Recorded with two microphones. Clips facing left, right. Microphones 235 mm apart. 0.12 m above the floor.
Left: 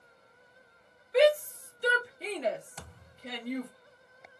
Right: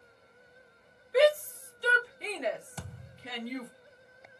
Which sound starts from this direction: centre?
A shout, at 1.1 s.